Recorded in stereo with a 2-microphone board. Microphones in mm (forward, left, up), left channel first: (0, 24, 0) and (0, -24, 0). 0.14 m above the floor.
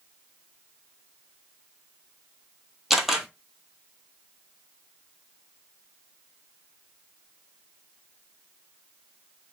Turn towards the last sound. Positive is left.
turn(degrees=-5)  # may be behind; listen again after turning